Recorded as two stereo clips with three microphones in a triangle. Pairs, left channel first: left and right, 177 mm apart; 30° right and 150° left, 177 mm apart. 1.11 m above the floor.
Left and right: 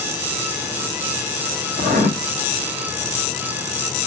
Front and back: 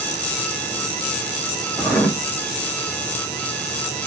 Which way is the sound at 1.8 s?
110° right.